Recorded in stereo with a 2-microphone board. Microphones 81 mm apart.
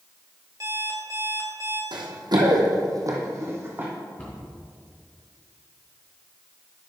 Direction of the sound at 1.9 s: 70° right (ahead or behind).